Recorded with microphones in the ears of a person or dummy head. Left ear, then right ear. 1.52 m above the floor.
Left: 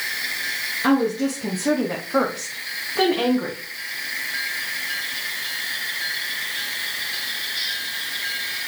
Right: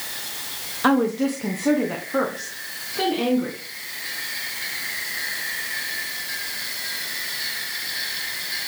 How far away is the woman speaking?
About 1.0 m.